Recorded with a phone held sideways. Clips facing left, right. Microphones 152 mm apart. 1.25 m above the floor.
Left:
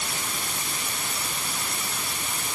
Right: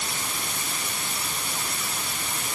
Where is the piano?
I don't hear a piano.